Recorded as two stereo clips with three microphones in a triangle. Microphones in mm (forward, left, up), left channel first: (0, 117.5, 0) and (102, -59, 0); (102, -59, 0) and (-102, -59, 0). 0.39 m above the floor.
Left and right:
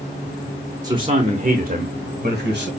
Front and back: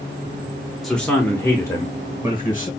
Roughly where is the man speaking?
Right.